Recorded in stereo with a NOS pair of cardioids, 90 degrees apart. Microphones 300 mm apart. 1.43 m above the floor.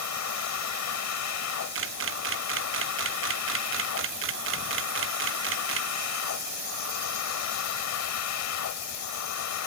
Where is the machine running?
65° left.